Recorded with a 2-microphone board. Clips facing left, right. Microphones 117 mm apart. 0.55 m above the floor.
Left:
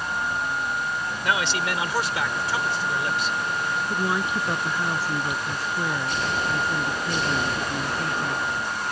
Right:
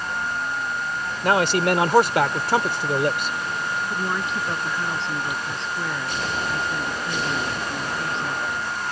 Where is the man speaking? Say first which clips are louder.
Right 7 dB; 45° right (ahead or behind); by 3.4 s 55° right (ahead or behind).